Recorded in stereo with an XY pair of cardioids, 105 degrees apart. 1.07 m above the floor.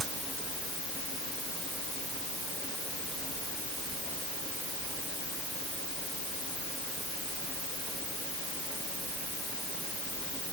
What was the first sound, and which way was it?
Only background noise.